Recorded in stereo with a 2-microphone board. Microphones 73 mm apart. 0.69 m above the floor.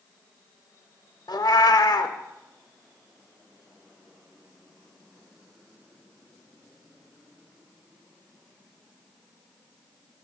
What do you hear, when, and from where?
1.3 s a cat meowing: 65° left (ahead or behind), 0.7 m